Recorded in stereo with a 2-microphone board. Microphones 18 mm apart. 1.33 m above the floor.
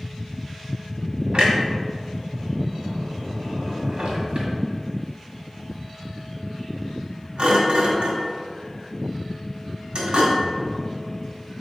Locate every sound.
1.3 s a clunk: 60° right (ahead or behind), 1.7 m